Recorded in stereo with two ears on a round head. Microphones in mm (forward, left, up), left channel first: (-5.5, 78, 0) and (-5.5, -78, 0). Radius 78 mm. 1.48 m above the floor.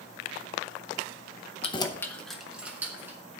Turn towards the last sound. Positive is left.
turn(degrees=-15)  # may be behind; listen again after turning